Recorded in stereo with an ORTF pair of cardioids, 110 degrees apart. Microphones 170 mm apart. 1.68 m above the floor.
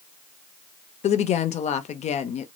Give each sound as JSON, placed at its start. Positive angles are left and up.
{"t": 1.0, "sound": "a woman speaking", "azimuth_deg": 40, "distance_m": 0.5}